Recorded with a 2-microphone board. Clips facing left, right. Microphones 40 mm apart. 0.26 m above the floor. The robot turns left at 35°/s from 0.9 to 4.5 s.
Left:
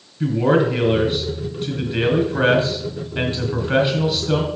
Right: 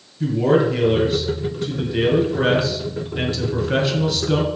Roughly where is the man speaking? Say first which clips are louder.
Even; behind left.